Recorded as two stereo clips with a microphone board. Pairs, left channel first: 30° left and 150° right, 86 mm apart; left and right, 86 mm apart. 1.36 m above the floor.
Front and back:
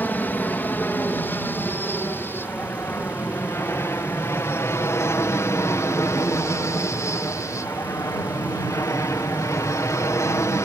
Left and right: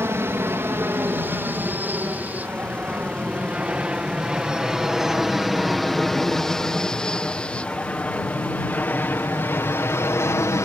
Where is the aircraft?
35° right; by 10.7 s 60° left.